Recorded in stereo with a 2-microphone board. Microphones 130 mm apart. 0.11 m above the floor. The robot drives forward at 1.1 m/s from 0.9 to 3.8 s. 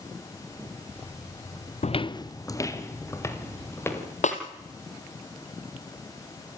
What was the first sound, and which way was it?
Footsteps, 65° left (ahead or behind).